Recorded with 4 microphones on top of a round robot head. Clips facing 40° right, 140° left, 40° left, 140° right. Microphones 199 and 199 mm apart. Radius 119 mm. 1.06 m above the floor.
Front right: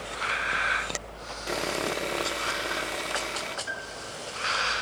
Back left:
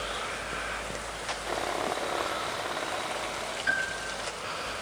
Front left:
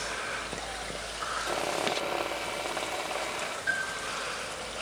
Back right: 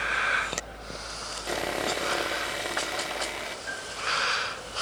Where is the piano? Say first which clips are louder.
Back left 2 dB, back right 1 dB; 120° left, 6.5 m.